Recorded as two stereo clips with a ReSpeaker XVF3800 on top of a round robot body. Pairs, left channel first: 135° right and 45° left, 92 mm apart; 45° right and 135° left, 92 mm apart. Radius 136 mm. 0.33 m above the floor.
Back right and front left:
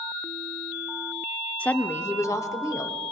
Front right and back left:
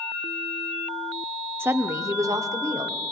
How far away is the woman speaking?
About 0.9 m.